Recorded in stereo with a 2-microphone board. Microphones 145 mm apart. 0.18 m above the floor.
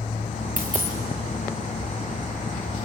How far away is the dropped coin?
About 5.5 m.